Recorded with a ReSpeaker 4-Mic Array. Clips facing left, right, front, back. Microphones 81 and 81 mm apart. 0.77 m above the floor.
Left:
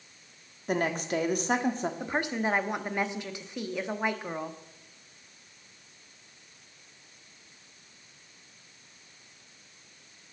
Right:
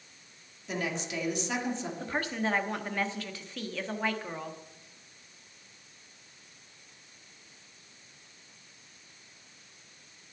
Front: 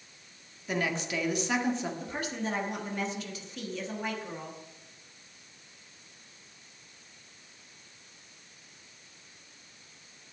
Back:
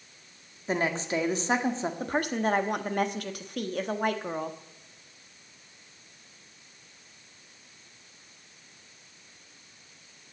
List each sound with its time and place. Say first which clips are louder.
0.7 s a woman speaking: left 6 dB, back 3 dB; 125° left, 1.5 m
2.0 s a woman speaking: left 1 dB, back 7 dB; 160° left, 1.1 m